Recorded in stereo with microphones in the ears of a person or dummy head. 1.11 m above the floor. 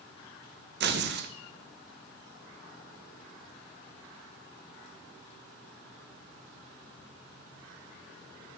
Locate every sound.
0.8 s tearing paper: 60° right (ahead or behind), 0.9 m